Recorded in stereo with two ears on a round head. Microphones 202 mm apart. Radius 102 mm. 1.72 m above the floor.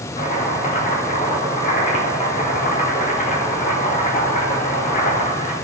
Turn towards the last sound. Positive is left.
turn(degrees=35)  # may be behind; listen again after turning